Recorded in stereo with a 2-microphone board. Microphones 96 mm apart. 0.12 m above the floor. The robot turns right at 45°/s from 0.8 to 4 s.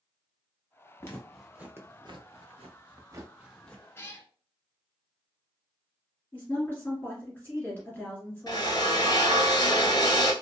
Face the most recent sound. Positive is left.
turn(degrees=45)  # may be behind; listen again after turning